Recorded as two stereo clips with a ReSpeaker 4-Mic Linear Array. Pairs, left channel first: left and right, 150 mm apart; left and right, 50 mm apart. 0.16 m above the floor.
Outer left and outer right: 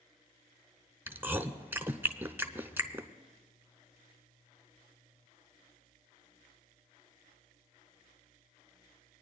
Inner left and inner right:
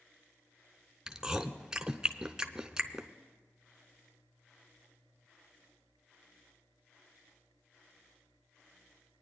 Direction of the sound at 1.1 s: 15° right (ahead or behind).